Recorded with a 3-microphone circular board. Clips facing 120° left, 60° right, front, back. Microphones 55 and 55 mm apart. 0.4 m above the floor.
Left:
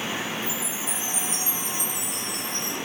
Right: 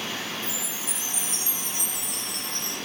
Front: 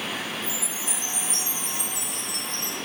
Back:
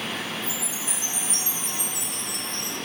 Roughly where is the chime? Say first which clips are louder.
Left 3 dB, even; left.